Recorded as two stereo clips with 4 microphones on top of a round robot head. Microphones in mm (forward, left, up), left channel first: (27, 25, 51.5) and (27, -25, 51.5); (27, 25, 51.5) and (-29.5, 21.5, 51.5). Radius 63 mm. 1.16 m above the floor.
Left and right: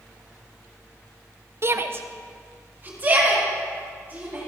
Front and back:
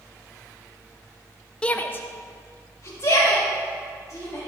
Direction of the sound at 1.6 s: 65° right.